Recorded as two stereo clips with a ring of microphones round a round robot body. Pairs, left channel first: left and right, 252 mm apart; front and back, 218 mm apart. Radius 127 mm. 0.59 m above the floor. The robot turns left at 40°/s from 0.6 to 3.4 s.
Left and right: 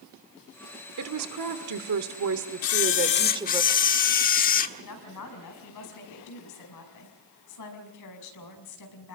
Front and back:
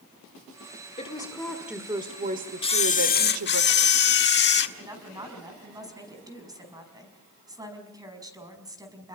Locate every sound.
1.0 s a woman speaking: 65° right, 1.5 m; by 3.6 s 165° right, 1.5 m
2.6 s a camera shutter: 65° left, 1.2 m; by 4.7 s 35° left, 1.2 m
4.8 s a woman speaking: 105° left, 5.5 m